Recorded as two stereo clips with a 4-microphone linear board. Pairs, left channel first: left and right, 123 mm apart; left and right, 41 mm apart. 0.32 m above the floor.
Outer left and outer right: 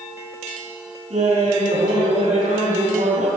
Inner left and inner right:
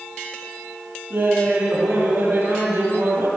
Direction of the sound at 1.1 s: 75° right (ahead or behind).